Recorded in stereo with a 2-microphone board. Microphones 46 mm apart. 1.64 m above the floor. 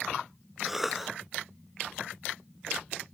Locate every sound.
0.7 s a cough: 5° right (ahead or behind), 0.7 m